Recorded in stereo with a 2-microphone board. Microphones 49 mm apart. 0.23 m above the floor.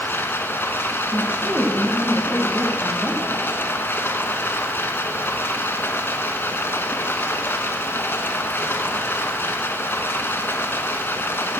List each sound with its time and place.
0.0 s running water: 45° left (ahead or behind), 1.3 m
1.1 s a woman speaking: 35° right (ahead or behind), 1.4 m